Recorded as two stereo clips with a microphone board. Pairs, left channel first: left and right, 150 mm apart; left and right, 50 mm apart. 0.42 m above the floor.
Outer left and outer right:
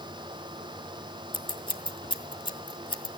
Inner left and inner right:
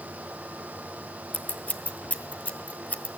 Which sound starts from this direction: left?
Scissors, at 1.3 s.